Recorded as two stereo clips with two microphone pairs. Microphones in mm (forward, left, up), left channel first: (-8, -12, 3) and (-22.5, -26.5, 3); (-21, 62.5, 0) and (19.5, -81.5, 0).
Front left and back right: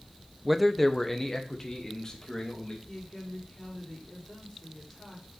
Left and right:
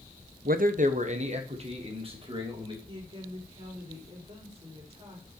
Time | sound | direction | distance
0.5 | a man speaking | 55° right | 0.7 m
2.9 | a woman speaking | 20° right | 4.5 m